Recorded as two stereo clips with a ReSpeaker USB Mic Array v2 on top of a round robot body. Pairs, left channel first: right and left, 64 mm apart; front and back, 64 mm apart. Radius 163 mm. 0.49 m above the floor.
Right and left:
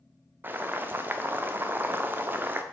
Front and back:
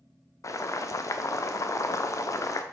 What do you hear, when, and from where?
0.4 s boiling: 35° left, 0.7 m